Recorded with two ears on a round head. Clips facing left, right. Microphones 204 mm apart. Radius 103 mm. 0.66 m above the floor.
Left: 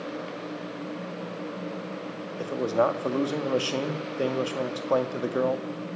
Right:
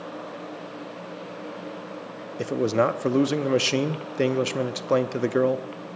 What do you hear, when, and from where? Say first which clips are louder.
2.4 s a man speaking: right 2 dB; 30° right (ahead or behind), 0.7 m